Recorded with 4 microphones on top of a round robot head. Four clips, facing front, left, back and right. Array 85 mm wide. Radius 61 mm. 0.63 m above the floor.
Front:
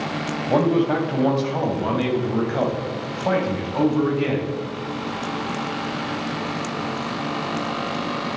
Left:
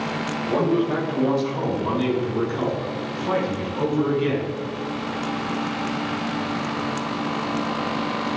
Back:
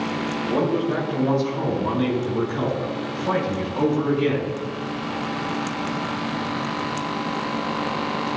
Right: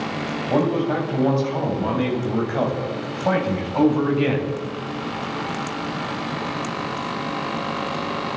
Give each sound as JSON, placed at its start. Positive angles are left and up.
{"t": 0.5, "sound": "a man speaking", "azimuth_deg": -20, "distance_m": 4.0}